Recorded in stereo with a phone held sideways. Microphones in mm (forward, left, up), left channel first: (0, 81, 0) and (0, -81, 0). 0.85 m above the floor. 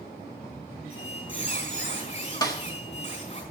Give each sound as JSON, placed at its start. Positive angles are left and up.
{"t": 0.9, "sound": "a squeak", "side_deg": 40, "distance_m": 5.0}
{"t": 2.4, "sound": "a snare drum", "side_deg": 25, "distance_m": 1.6}